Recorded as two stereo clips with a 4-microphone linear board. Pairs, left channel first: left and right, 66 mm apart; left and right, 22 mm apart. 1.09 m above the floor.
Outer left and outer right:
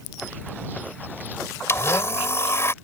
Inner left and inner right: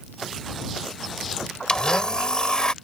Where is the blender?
40° left (ahead or behind).